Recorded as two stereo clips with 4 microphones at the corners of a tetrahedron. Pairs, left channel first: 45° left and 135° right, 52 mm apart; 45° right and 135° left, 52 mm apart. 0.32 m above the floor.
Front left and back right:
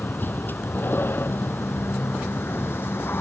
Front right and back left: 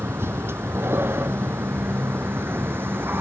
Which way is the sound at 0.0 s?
95° left.